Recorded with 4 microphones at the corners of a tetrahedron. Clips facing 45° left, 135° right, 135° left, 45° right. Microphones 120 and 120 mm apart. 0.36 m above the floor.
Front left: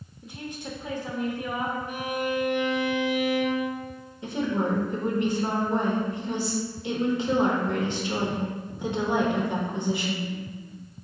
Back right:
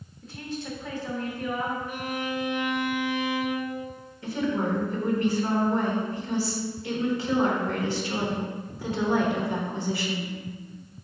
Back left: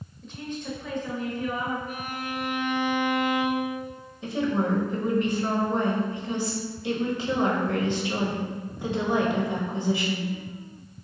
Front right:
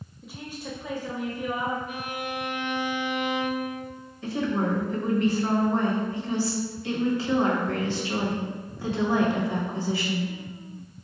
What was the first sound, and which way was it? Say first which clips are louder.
A woman speaking: back right 2 dB, back left 4 dB; 10° left.